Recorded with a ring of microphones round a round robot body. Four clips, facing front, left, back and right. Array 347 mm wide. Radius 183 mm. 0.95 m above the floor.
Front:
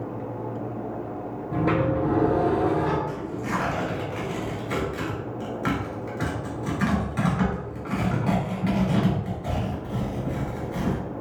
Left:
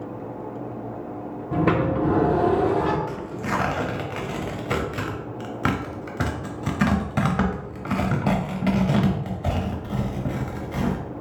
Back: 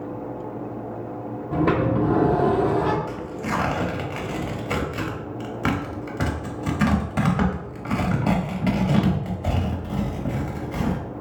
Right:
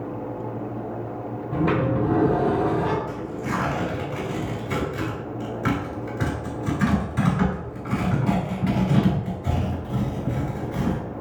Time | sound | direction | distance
1.5 | a sliding door | 125° left | 0.8 m
3.1 | tearing paper | 125° left | 0.9 m